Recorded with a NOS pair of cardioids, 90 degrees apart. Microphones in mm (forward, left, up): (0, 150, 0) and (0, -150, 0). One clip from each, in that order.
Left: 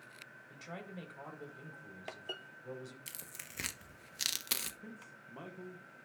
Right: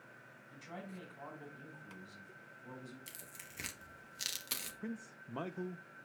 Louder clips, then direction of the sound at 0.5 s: Left 1 dB; 55° left.